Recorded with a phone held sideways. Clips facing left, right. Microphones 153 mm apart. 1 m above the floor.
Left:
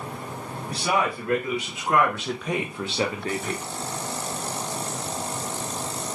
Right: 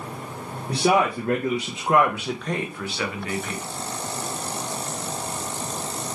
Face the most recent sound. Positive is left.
turn(degrees=45)  # may be behind; listen again after turning